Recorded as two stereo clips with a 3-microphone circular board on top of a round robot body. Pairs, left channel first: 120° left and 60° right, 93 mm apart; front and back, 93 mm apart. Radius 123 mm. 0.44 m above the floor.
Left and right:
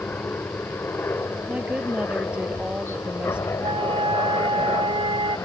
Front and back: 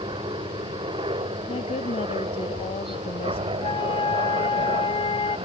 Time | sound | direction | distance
0.0 | a helicopter | 170° right | ?
1.5 | a woman speaking | 20° left | ?
3.6 | a flute | 30° right | ?